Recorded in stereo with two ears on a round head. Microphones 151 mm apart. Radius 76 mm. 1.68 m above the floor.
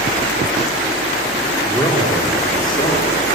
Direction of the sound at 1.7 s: 15° left (ahead or behind).